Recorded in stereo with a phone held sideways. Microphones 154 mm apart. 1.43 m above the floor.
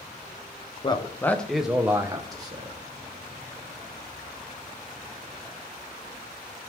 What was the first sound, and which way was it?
A man speaking, 30° left (ahead or behind).